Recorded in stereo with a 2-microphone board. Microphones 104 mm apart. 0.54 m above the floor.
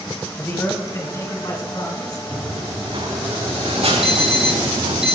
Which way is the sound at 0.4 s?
20° left (ahead or behind).